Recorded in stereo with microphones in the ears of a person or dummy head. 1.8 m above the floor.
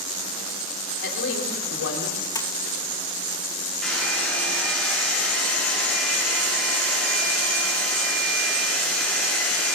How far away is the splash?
About 2 m.